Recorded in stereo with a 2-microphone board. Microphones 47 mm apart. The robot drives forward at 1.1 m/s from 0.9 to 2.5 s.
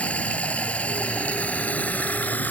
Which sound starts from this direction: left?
Running water, at 0.0 s.